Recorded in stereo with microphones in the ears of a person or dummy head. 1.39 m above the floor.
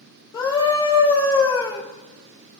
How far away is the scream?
About 3 m.